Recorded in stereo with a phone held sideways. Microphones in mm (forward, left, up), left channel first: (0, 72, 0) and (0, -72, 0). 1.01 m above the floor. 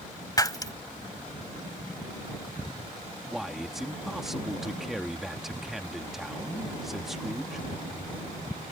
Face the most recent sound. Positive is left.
turn(degrees=0)  # may be behind; listen again after turning